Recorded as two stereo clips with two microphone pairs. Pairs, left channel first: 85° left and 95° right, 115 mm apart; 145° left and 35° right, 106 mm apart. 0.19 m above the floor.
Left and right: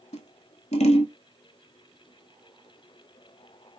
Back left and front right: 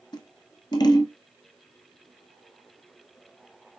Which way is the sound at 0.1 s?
95° left.